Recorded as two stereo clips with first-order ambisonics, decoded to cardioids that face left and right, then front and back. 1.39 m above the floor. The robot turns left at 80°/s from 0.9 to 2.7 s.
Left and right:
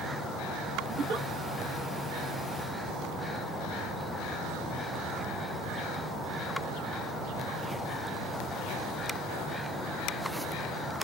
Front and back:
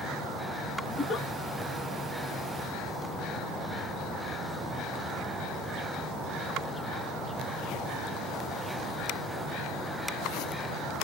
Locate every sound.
0.9 s a giggle: 45° right, 1.6 m; by 1.3 s 75° right, 1.6 m